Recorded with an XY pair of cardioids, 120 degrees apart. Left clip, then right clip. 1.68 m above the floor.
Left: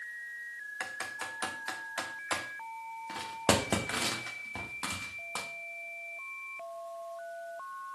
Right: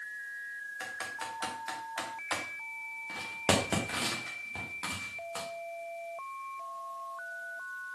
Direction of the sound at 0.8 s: 25° left.